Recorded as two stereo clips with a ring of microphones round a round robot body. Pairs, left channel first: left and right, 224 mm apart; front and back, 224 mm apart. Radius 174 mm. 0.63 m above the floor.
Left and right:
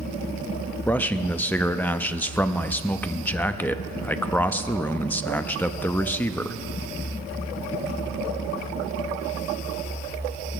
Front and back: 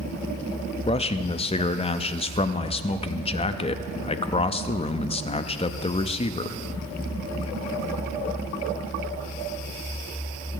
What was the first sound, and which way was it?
A man speaking, 15° left.